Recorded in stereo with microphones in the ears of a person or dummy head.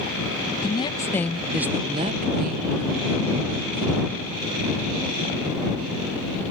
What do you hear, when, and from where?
0.6 s a woman speaking: 30° left (ahead or behind); by 4.2 s 85° right